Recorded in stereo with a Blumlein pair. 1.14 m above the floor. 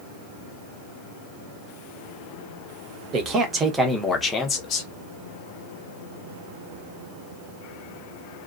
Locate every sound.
3.1 s a man speaking: 30° right, 1.2 m; by 4.9 s 35° left, 1.2 m